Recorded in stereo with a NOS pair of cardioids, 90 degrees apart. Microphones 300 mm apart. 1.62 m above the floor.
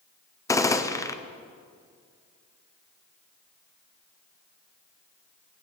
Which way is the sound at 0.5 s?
10° left.